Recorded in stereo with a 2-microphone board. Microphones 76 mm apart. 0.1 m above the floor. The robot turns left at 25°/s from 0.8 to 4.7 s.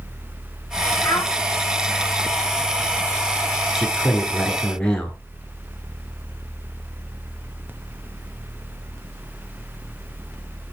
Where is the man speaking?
Centre (ahead or behind), 1.2 m; by 5.2 s 10° left (ahead or behind), 1.2 m.